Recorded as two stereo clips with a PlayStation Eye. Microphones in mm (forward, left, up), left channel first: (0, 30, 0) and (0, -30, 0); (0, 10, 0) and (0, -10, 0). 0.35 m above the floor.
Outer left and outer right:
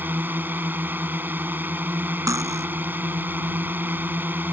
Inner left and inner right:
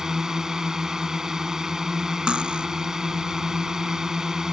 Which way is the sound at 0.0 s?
35° right (ahead or behind).